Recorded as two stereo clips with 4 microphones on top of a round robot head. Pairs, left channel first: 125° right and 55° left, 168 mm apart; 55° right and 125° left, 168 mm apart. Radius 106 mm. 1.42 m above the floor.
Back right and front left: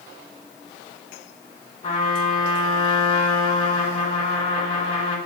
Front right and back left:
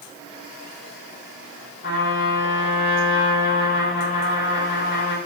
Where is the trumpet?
80° right, 4.5 m.